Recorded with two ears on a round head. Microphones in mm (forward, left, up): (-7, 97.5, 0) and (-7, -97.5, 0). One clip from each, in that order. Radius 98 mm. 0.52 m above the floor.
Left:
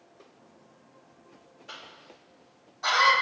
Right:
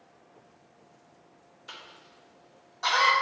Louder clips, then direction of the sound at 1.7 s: Left 1 dB; 35° right (ahead or behind).